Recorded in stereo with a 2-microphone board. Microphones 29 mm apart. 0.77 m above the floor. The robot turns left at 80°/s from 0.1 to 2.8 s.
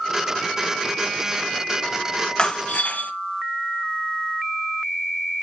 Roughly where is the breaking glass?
Behind left.